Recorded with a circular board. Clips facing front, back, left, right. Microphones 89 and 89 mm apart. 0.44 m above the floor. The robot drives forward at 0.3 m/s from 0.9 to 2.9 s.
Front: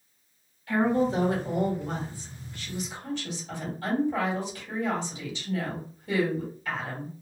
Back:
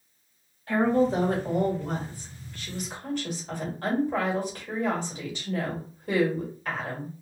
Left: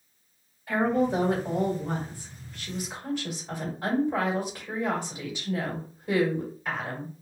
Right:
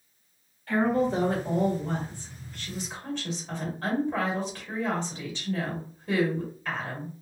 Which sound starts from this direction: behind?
A woman speaking, at 0.7 s.